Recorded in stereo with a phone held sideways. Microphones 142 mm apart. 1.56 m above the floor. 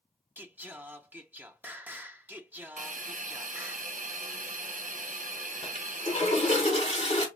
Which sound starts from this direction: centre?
Singing, at 0.4 s.